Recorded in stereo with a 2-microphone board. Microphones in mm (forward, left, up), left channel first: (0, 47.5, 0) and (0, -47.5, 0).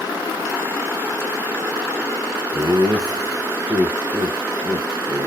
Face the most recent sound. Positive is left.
turn(degrees=-25)  # may be behind; listen again after turning